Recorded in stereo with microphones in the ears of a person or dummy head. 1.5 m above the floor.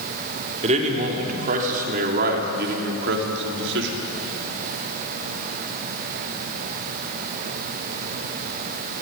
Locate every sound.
0.6 s a man speaking: 35° right (ahead or behind), 3.5 m; by 4.0 s 70° right (ahead or behind), 3.5 m